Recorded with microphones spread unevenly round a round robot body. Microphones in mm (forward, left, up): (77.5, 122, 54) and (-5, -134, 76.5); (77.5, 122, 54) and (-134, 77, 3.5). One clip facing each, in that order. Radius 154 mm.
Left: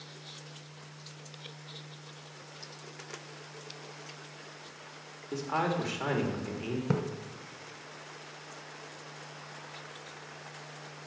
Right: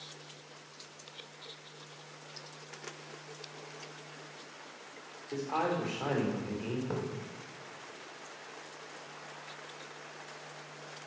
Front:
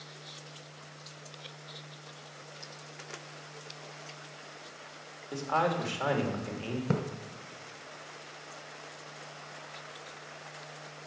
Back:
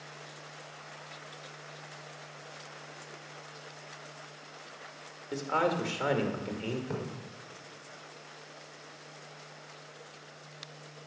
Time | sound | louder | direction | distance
5.3 | a man speaking | left 1 dB, back 1 dB | 135° left | 2.0 m
6.9 | a splash | left 9 dB, front 5 dB | 30° left | 0.9 m